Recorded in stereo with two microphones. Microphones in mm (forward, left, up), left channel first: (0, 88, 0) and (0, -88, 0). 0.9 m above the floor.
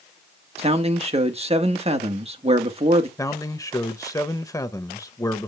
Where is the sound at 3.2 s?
20° left (ahead or behind), 0.7 m.